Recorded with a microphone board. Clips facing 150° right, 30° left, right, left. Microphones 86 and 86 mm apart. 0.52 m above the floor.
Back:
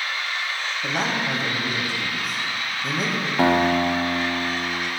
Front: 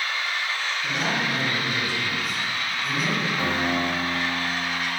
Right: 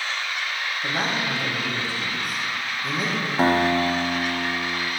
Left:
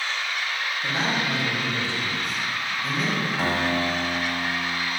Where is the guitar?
135° right, 0.7 m.